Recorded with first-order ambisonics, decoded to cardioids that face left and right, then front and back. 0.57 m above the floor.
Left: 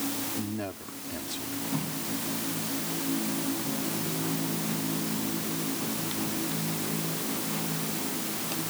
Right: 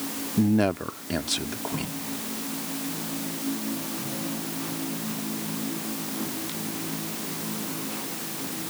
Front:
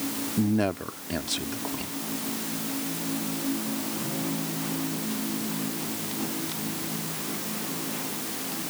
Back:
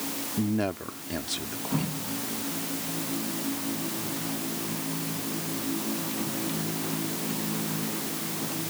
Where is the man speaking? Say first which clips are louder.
Right 11 dB, front 3 dB; 80° right.